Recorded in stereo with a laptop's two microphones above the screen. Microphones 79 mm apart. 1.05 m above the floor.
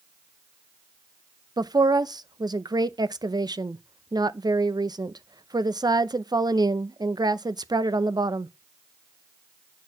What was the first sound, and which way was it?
A woman speaking, 70° right (ahead or behind).